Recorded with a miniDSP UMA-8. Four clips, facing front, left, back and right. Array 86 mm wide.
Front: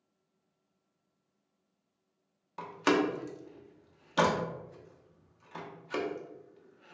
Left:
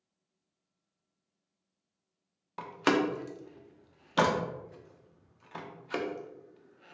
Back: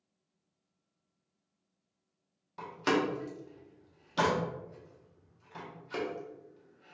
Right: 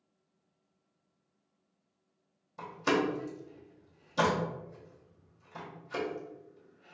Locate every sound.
2.6 s a door slam: 70° left, 0.6 m